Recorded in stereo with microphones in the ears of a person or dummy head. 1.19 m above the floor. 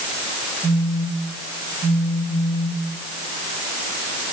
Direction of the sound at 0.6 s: 30° right (ahead or behind).